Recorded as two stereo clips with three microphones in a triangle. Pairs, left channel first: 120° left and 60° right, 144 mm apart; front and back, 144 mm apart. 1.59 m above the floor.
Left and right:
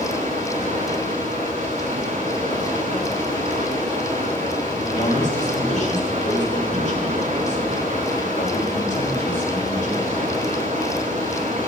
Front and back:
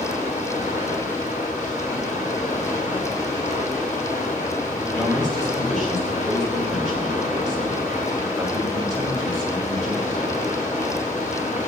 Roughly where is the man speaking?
Left.